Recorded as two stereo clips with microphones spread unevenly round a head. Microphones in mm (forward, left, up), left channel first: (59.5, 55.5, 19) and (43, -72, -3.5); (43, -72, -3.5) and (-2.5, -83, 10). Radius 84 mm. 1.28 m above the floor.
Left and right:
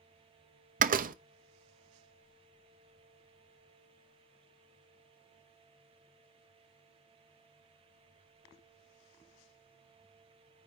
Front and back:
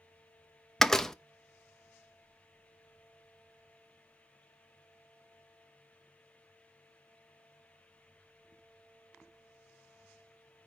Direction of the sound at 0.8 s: 75° right.